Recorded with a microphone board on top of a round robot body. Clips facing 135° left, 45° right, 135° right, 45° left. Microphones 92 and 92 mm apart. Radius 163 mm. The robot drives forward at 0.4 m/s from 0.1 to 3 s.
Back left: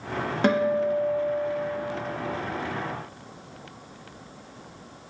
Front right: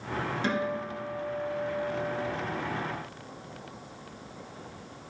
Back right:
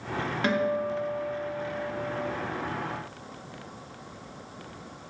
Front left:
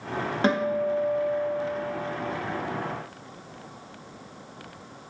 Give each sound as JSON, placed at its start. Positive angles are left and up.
{"t": 0.4, "sound": "a guitar", "azimuth_deg": 105, "distance_m": 0.9}